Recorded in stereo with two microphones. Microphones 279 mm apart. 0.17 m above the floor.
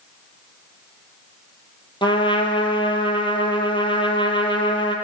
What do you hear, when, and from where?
2.0 s a trumpet: 20° left (ahead or behind), 0.9 m